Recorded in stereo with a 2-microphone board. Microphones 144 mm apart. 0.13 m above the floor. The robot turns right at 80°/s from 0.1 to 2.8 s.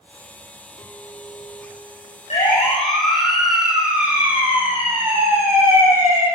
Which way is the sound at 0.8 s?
25° left.